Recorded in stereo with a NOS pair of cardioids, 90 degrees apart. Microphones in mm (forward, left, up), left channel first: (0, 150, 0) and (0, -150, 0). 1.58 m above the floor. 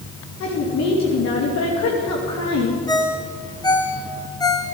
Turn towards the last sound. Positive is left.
turn(degrees=15)